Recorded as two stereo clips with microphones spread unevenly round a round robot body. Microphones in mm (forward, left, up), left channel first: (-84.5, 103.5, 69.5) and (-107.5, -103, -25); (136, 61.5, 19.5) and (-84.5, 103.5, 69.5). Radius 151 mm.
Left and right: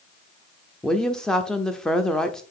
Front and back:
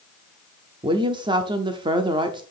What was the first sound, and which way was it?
A woman speaking, 115° right.